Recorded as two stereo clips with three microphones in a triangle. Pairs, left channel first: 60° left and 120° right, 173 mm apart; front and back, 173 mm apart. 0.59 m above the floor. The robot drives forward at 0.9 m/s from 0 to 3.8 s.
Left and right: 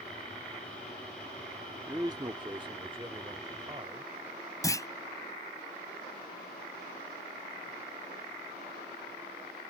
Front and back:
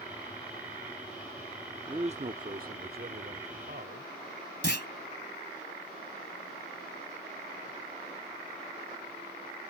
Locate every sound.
1.9 s a man speaking: 165° right; by 4.1 s straight behind
4.6 s a clunk: 10° right